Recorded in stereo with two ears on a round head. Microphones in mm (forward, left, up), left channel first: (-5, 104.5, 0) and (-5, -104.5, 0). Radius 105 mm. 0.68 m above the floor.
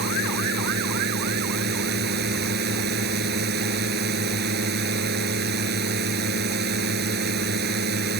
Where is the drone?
45° right (ahead or behind).